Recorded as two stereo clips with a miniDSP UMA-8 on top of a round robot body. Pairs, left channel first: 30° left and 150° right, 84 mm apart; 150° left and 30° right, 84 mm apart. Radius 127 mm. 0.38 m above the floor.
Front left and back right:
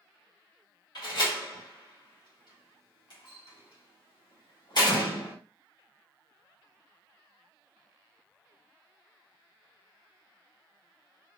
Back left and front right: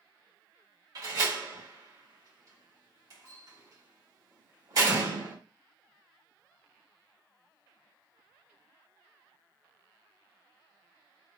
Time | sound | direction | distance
0.9 | a door slam | 10° left | 1.8 m